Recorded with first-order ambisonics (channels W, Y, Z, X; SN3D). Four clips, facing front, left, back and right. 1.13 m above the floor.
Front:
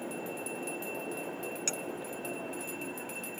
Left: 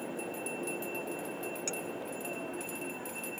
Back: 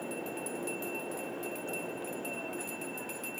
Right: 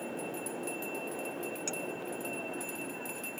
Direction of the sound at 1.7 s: Straight ahead.